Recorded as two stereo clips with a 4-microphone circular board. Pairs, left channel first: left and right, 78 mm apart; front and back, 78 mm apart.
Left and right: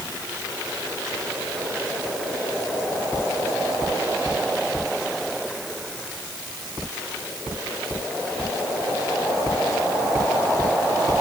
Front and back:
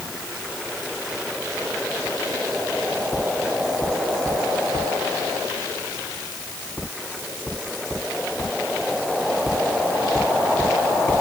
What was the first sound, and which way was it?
Only background noise.